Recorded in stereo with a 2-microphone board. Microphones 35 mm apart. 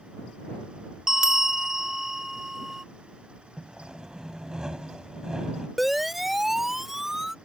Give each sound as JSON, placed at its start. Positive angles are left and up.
{"t": 1.1, "sound": "a bell", "side_deg": -20}
{"t": 3.6, "sound": "sawing", "side_deg": -25}
{"t": 5.8, "sound": "a siren", "side_deg": 0}